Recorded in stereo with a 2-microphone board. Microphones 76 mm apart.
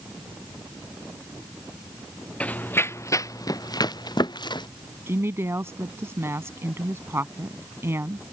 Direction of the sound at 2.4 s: 15° left (ahead or behind).